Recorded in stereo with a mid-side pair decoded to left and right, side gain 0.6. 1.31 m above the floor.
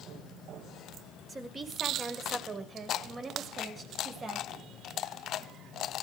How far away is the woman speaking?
About 5 m.